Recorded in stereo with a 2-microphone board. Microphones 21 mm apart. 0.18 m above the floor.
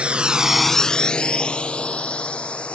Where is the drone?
65° right (ahead or behind); by 2.8 s 65° left (ahead or behind).